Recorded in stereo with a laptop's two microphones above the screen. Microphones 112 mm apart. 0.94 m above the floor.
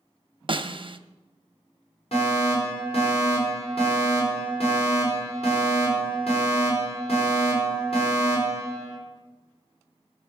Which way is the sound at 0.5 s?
50° right (ahead or behind).